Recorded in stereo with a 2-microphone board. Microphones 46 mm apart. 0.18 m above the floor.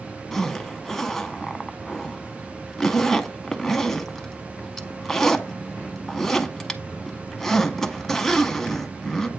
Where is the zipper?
10° left (ahead or behind), 0.6 m.